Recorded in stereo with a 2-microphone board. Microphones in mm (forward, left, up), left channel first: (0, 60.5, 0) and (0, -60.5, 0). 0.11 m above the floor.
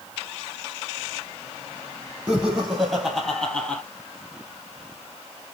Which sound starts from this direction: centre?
Laughter, at 2.3 s.